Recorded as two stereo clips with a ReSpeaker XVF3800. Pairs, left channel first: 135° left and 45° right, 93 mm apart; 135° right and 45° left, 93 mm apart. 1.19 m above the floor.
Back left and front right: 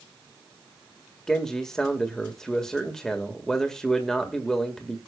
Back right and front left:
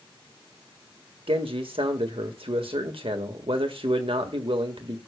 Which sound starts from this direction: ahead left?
A man speaking, at 1.3 s.